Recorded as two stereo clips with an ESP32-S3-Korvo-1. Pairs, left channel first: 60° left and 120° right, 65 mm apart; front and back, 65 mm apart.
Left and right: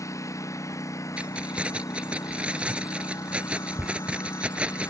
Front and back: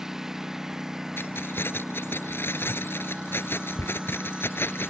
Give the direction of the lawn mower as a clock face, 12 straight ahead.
9 o'clock.